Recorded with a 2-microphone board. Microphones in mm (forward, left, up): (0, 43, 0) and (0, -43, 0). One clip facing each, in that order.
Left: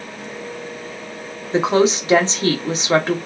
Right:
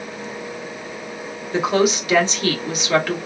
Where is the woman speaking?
30° left (ahead or behind), 1.0 m.